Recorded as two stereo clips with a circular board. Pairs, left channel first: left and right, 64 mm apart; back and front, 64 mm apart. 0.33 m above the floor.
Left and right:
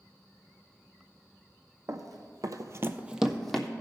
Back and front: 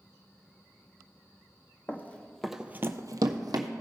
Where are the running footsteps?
120° right, 1.0 m; by 3.7 s 10° left, 1.0 m.